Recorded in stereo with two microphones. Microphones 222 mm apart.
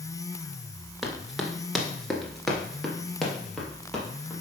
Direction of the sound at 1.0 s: Centre (ahead or behind).